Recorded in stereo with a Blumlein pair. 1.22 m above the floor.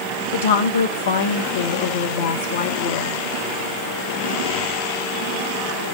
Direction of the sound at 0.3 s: 60° left.